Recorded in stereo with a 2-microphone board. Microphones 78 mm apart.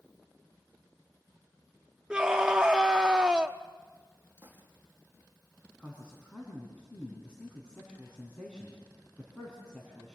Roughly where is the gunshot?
Right.